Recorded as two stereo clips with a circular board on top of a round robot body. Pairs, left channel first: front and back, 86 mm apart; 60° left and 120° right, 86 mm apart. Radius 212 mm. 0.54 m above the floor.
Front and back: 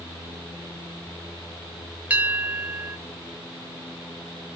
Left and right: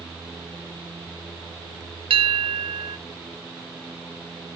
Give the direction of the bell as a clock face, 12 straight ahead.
4 o'clock.